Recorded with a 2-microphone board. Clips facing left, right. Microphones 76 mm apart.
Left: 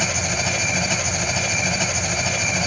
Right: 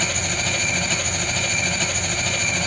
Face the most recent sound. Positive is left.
turn(degrees=10)  # may be behind; listen again after turning